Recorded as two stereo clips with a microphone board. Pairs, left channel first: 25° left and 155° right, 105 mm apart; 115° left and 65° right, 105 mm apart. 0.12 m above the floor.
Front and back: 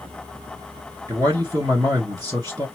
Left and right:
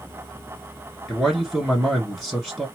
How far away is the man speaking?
About 2 m.